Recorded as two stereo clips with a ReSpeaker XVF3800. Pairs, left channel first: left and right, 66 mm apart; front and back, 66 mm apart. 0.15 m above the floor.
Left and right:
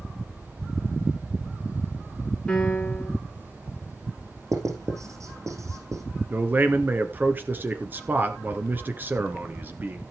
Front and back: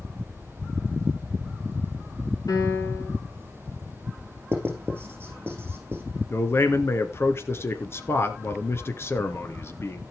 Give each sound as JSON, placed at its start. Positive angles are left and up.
{"t": 2.5, "sound": "a piano", "azimuth_deg": 10, "distance_m": 4.0}
{"t": 4.5, "sound": "writing", "azimuth_deg": -125, "distance_m": 5.5}
{"t": 6.3, "sound": "a man speaking", "azimuth_deg": -40, "distance_m": 1.7}